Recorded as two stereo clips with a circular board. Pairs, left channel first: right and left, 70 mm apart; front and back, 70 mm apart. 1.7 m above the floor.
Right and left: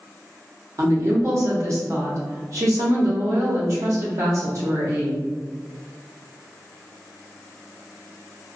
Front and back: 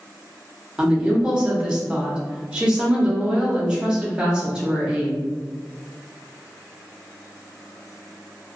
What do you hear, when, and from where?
0.8 s a woman speaking: 105° left, 0.9 m